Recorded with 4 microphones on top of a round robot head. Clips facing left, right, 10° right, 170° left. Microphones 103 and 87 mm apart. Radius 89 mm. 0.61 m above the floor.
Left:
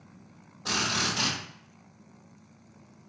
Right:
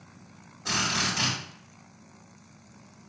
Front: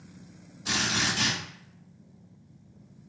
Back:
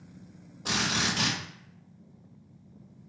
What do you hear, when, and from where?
0.7 s a drill: 160° left, 2.5 m